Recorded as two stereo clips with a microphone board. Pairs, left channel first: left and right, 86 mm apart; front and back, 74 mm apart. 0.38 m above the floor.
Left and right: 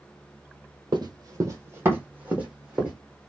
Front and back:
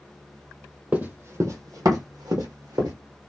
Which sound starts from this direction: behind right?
Running footsteps, at 0.9 s.